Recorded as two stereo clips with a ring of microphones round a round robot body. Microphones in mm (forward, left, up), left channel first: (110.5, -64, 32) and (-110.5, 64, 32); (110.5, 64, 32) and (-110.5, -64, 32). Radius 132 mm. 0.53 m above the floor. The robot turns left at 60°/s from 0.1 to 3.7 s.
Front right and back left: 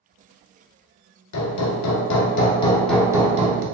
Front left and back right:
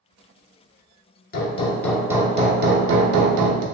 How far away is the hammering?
About 0.7 m.